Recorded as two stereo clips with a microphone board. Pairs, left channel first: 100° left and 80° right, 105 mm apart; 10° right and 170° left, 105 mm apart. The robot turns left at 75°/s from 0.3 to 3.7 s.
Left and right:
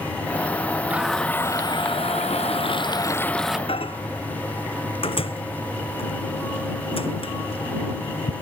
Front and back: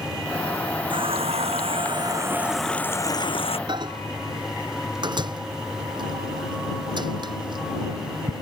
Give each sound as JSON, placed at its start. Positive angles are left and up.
{"t": 0.9, "sound": "a running tap", "azimuth_deg": -155}
{"t": 3.7, "sound": "a microwave", "azimuth_deg": 130}